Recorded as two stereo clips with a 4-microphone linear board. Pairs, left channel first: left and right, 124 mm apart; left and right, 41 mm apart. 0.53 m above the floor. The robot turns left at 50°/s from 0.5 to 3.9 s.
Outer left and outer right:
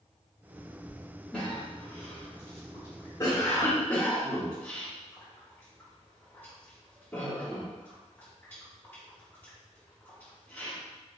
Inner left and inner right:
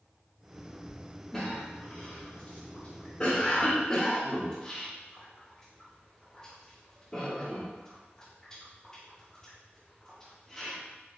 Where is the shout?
No shout in this recording.